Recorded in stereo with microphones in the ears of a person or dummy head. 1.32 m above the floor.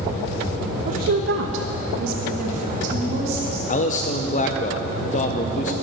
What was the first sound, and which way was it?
A woman speaking, 45° right (ahead or behind).